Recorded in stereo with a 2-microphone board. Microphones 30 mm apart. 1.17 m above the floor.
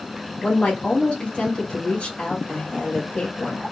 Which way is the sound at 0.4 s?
50° left (ahead or behind).